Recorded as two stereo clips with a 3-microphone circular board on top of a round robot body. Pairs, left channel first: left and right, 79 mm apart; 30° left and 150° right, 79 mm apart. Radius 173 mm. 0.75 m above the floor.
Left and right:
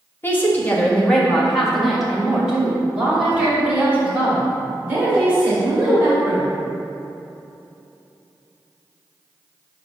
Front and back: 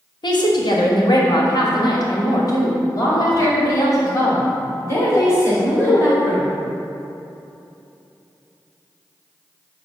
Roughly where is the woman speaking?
Ahead left.